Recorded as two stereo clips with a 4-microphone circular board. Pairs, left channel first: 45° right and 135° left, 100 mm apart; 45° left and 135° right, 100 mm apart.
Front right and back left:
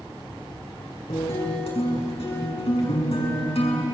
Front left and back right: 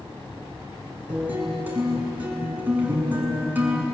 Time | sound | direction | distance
1.1 | a guitar | 60° right | 5.5 m